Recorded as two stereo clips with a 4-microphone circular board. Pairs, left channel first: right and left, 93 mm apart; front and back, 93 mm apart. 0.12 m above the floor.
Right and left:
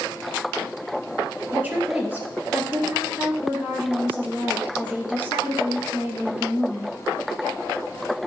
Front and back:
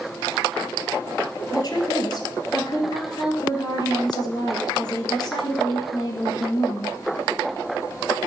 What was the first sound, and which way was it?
A woman speaking, 25° left.